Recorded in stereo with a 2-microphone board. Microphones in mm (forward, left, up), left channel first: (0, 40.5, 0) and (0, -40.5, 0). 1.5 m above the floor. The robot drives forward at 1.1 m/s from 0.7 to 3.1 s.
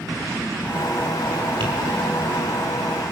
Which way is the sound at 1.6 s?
80° right.